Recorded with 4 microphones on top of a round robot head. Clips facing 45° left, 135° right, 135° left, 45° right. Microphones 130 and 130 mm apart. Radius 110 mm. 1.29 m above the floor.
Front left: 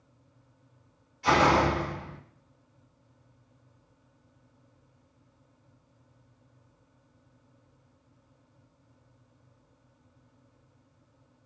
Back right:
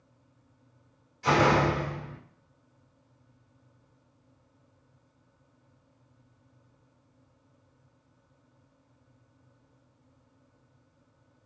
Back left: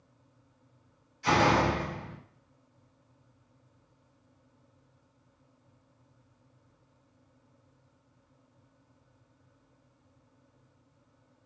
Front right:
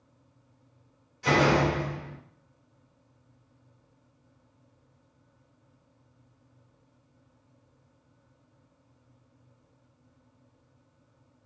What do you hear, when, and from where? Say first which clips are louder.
1.2 s a door slam: front left 1 dB, front right 2 dB; 85° right, 1.8 m